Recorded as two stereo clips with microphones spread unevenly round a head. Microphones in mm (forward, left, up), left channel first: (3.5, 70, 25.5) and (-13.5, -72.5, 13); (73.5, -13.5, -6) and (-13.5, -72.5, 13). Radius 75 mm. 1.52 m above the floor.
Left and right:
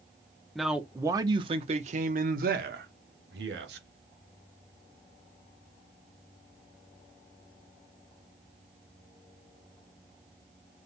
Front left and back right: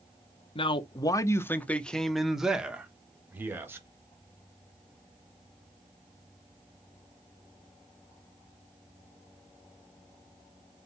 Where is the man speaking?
5° right, 0.8 m; by 3.9 s 80° right, 1.8 m.